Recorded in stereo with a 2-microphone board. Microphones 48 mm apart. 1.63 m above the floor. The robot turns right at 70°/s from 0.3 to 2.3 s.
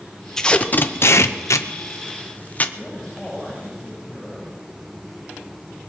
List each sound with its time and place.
0.4 s tape being pulled: 10° left (ahead or behind), 0.8 m; by 2.6 s 35° left (ahead or behind), 0.8 m
2.8 s a man speaking: 5° left (ahead or behind), 8 m